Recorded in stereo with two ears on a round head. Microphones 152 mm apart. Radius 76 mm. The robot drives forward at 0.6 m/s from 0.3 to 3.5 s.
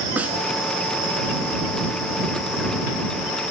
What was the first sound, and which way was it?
A snare drum, 10° right (ahead or behind).